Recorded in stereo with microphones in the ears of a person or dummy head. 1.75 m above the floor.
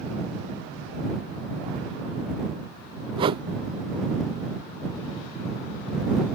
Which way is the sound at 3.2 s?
25° right (ahead or behind).